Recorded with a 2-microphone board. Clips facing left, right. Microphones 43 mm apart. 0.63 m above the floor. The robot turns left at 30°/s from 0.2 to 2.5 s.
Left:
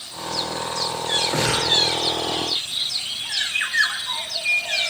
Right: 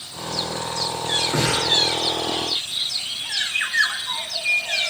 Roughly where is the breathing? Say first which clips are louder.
Right 1 dB; left.